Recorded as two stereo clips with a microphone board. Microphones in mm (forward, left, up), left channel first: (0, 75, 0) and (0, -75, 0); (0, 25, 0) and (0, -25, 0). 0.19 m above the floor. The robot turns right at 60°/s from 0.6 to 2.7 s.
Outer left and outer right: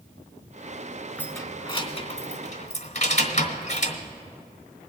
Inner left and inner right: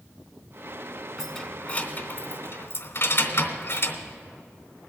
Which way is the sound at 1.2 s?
10° left (ahead or behind).